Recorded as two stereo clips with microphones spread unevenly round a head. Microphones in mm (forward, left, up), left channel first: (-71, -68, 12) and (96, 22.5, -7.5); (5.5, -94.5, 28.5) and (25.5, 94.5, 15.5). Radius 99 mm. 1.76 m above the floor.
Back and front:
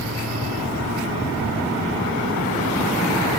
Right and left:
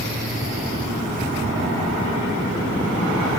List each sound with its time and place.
0.0 s a machine running: 35° left